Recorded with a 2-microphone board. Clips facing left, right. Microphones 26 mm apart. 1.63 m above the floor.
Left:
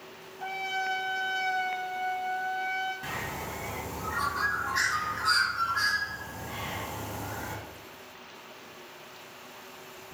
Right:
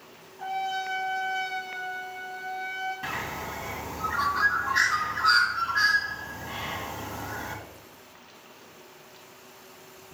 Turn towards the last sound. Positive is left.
turn(degrees=-20)  # may be behind; listen again after turning